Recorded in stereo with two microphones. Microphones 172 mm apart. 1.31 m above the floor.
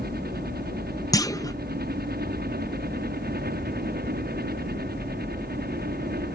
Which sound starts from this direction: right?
A helicopter, at 0.0 s.